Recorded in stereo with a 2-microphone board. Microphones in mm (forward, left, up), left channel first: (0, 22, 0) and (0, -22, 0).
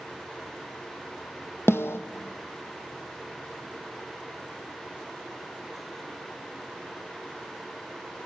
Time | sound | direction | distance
1.7 | a snare drum | 70° left (ahead or behind) | 1.1 m